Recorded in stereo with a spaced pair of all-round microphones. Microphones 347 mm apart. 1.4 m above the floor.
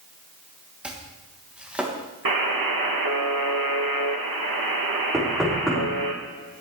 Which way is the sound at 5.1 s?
Centre (ahead or behind).